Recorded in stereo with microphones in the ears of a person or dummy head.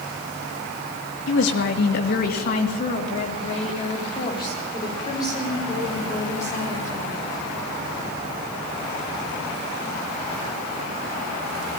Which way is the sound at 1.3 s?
75° left (ahead or behind).